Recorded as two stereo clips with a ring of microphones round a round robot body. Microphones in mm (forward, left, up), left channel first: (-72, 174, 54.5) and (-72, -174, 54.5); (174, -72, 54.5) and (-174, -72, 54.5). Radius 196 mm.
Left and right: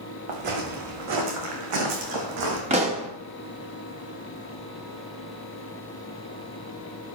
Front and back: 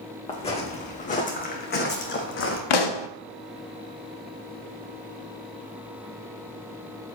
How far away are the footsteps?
About 3 m.